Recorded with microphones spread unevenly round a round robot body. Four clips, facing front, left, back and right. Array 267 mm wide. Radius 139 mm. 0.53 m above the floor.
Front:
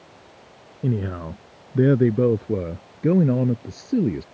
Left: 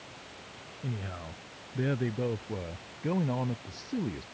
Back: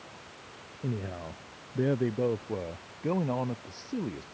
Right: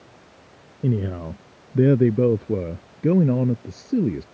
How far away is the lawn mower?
No lawn mower in this recording.